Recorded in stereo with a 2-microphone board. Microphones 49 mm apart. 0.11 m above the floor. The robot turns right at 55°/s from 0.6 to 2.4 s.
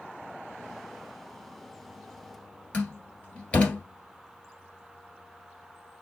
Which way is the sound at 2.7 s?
25° left (ahead or behind).